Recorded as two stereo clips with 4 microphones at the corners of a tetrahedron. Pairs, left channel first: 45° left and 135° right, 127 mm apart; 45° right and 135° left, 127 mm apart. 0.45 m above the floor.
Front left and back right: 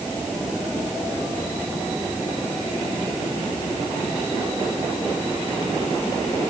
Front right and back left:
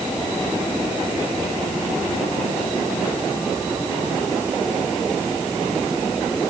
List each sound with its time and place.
Only background noise.